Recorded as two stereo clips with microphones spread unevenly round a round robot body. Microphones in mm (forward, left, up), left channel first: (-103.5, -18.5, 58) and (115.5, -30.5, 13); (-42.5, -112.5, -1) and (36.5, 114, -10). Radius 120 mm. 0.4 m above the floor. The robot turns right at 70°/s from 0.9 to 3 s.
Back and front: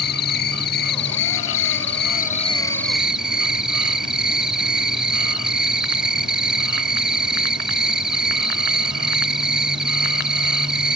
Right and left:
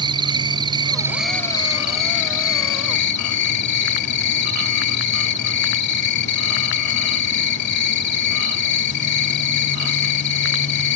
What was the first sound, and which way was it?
An insect, 135° left.